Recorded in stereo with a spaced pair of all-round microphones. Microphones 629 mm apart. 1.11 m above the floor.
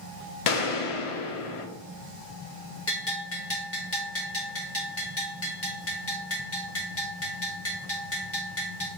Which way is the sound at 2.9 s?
20° left (ahead or behind).